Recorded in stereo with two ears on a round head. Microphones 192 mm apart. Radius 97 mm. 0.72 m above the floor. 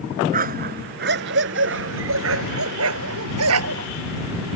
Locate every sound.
0.3 s a dog barking: 45° right (ahead or behind); by 3.9 s 85° right